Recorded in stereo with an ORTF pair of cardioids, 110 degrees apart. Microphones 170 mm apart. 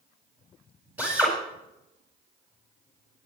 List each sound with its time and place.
1.0 s a drill: 10° right, 9 m